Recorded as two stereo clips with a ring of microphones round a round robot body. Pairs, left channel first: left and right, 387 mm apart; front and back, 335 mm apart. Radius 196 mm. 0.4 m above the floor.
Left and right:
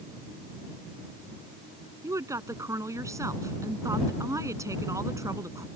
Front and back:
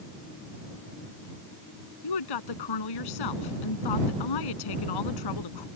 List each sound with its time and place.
2.0 s a woman speaking: 10° right